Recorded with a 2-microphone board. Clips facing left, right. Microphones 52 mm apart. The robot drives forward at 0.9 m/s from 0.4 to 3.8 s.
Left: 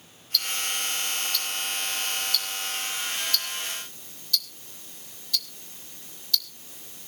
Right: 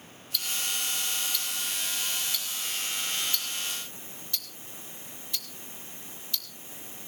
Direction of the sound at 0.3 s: 15° right (ahead or behind).